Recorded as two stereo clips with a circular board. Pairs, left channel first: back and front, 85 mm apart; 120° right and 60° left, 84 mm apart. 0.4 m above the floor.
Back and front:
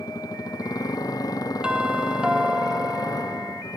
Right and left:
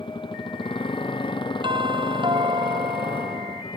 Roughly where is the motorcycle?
Behind right.